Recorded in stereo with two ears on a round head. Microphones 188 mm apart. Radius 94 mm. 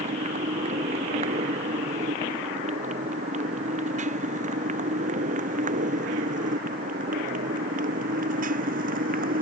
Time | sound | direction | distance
0.0 | a motorcycle | 35° right (ahead or behind) | ?